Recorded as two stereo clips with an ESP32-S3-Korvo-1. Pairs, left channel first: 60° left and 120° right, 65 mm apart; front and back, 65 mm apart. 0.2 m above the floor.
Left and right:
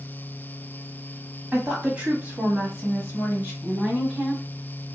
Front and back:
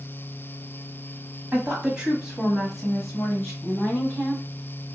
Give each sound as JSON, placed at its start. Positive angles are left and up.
{"t": 1.5, "sound": "a woman speaking", "azimuth_deg": -160, "distance_m": 1.1}
{"t": 3.6, "sound": "a woman speaking", "azimuth_deg": -55, "distance_m": 1.2}